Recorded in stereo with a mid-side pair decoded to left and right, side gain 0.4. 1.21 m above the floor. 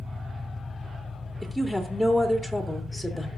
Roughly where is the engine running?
Ahead.